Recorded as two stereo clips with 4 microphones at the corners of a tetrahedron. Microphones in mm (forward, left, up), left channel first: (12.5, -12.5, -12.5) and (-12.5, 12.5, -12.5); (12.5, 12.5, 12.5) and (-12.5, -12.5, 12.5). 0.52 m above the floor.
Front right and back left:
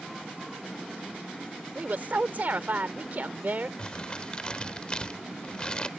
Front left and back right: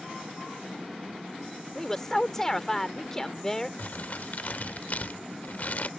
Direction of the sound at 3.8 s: 15° left.